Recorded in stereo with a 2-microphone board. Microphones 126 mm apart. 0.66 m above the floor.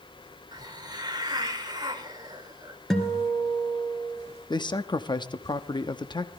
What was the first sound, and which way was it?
A hiss, 35° right (ahead or behind).